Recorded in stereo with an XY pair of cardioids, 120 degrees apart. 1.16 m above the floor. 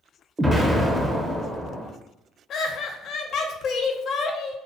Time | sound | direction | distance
0.4 | an explosion | 5° right | 0.6 m
2.5 | laughter | 55° left | 0.6 m